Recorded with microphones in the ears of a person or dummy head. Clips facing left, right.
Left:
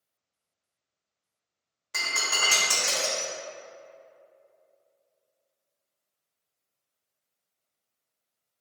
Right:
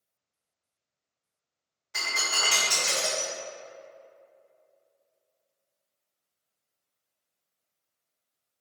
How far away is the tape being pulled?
I don't hear tape being pulled.